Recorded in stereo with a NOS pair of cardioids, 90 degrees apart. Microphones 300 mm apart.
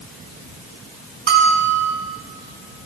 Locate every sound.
1.3 s a bell: 45° right, 3 m